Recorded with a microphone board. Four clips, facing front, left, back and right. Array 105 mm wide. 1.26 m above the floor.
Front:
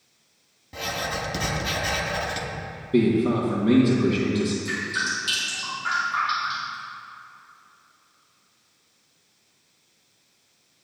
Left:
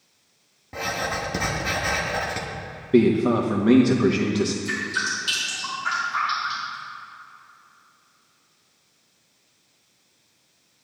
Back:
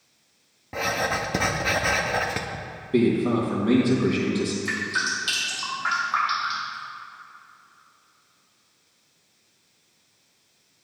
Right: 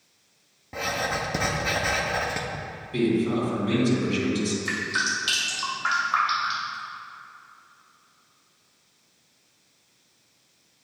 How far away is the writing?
About 0.7 m.